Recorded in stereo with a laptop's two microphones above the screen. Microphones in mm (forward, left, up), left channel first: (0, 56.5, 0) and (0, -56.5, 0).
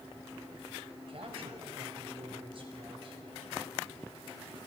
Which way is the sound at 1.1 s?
55° right (ahead or behind).